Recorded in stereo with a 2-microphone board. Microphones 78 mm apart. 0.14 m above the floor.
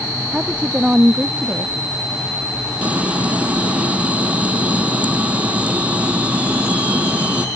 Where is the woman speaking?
15° right (ahead or behind).